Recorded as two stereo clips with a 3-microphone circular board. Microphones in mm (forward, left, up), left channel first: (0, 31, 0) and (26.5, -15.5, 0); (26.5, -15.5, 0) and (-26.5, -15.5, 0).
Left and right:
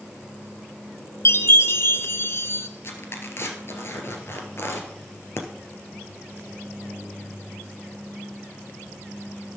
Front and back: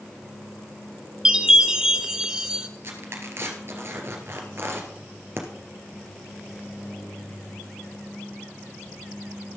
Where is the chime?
105° left, 0.8 m.